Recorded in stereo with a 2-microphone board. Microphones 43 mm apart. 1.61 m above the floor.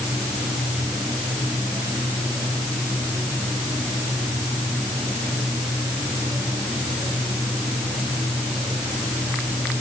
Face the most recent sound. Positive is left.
No sound to turn to.